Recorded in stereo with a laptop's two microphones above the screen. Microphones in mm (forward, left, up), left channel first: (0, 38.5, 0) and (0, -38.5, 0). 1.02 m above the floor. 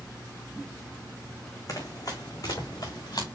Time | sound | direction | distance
1.7 | running footsteps | 50° left (ahead or behind) | 3.5 m